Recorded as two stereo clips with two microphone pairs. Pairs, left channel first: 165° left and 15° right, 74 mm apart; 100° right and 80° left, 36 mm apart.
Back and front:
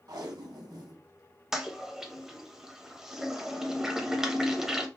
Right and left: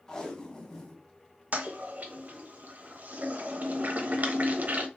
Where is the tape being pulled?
30° right, 0.9 m.